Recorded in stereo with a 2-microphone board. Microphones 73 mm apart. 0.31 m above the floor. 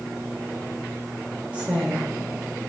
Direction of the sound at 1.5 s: 15° right (ahead or behind).